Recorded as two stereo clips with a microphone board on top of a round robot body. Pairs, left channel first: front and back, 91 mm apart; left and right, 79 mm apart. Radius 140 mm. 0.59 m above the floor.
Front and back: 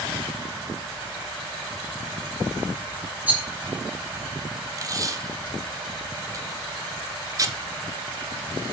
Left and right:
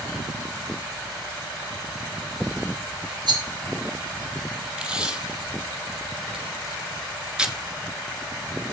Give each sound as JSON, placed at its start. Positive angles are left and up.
{"t": 3.3, "sound": "a rattle", "azimuth_deg": -105, "distance_m": 2.5}
{"t": 4.8, "sound": "tape being pulled", "azimuth_deg": -160, "distance_m": 1.5}